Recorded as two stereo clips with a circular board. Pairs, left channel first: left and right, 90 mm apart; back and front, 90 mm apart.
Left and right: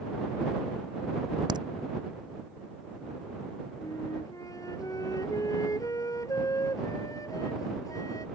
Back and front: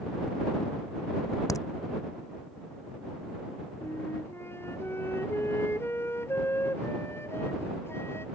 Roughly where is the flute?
Behind left.